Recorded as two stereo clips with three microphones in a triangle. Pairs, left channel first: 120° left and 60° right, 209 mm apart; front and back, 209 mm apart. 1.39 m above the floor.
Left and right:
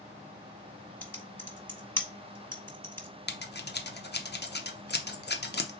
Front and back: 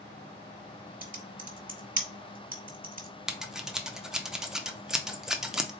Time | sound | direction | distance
1.0 | typing on a keyboard | 165° right | 1.1 m
3.3 | scissors | 95° left | 0.7 m